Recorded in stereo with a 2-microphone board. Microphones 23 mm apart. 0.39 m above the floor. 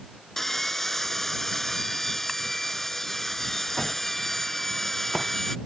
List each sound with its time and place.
0.4 s sawing: 15° left (ahead or behind)